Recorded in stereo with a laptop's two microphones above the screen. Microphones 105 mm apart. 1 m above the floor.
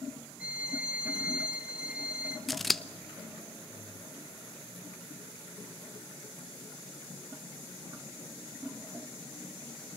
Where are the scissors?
Centre (ahead or behind), 0.8 m.